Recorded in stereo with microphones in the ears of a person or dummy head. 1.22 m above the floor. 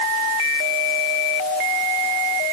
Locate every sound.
Only background noise.